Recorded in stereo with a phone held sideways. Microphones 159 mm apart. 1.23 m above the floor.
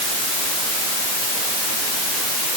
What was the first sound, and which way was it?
Only background noise.